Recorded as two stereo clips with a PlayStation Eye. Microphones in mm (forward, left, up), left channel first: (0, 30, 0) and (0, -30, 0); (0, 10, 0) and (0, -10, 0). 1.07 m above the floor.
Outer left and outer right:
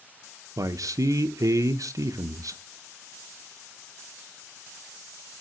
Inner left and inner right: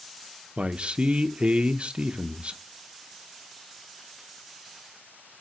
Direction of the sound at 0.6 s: 70° right (ahead or behind).